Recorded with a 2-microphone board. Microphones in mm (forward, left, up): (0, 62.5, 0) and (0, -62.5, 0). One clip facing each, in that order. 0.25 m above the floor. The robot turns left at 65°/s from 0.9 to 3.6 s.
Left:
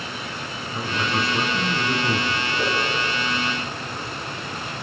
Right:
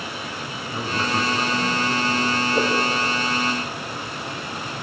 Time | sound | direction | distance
0.7 | a man speaking | 165° right | 2 m
2.5 | a whoosh | 80° right | 9 m